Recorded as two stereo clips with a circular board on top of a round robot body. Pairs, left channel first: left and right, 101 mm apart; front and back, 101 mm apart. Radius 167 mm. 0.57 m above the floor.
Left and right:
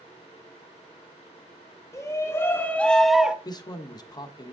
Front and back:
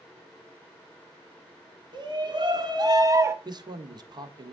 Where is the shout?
145° left, 1.9 m; by 3.4 s 160° right, 1.1 m.